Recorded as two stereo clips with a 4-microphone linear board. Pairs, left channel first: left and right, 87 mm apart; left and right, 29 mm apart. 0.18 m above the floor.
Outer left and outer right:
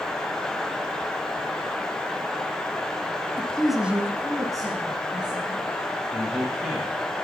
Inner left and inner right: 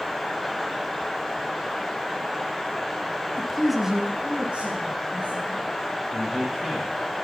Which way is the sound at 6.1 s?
15° right (ahead or behind).